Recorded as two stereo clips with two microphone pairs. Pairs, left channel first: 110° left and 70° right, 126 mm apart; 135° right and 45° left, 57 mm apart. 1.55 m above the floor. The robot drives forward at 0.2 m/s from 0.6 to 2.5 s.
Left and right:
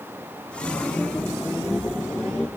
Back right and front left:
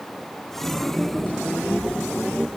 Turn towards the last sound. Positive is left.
No sound to turn to.